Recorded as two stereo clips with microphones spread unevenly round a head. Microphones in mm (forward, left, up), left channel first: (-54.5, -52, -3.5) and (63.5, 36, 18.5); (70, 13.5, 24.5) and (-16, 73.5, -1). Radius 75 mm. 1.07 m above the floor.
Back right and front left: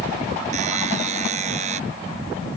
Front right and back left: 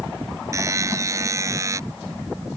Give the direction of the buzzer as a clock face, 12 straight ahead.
9 o'clock.